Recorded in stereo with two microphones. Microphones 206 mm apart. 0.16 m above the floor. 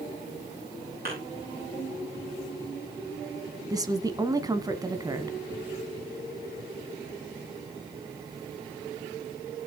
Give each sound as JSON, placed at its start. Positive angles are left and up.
{"t": 1.1, "sound": "a thud", "side_deg": -45, "distance_m": 8.5}
{"t": 3.7, "sound": "a woman speaking", "side_deg": -20, "distance_m": 1.2}